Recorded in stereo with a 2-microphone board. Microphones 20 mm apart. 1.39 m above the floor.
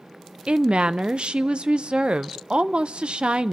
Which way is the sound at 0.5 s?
60° right (ahead or behind).